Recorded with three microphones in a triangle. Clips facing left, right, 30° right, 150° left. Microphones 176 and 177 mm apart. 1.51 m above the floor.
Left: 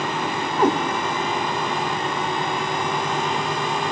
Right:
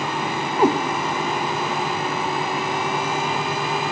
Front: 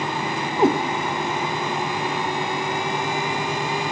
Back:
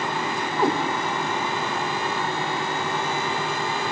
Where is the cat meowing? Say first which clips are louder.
Right 1 dB, front 5 dB; 25° right, 0.7 m.